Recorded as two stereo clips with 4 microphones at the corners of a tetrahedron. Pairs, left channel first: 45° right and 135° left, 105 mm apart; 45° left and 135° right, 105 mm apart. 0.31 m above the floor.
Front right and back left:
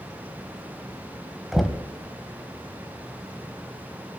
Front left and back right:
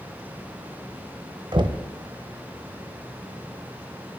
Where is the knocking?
135° right, 1.0 m.